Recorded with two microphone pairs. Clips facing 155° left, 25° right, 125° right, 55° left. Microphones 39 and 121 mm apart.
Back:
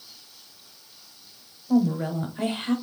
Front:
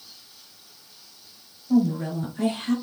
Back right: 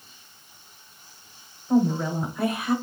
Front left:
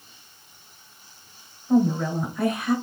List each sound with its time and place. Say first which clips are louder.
1.7 s a woman speaking: front 1 dB, front left 1 dB; 150° left, 1.1 m